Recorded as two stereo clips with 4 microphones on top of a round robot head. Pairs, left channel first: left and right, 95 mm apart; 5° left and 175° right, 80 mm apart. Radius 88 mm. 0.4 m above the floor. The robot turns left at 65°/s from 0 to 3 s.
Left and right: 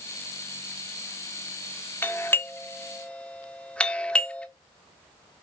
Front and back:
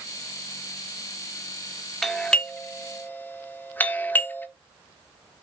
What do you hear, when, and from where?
2.0 s a doorbell: 95° left, 1.3 m; by 4.5 s 30° left, 1.3 m